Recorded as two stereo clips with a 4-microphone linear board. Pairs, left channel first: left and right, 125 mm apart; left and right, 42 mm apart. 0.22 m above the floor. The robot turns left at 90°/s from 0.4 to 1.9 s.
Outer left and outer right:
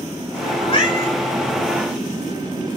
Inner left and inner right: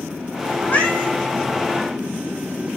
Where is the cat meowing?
55° left, 5.5 m; by 1.1 s 10° left, 5.5 m.